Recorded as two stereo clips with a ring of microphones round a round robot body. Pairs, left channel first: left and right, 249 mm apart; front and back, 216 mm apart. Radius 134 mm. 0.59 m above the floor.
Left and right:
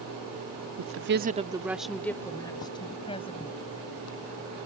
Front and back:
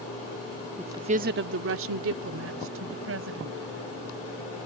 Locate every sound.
0.8 s a woman speaking: 95° right; by 3.7 s 155° left